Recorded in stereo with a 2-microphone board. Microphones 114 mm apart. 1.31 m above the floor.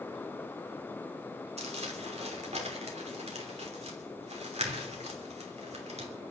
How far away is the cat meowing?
I don't hear a cat meowing.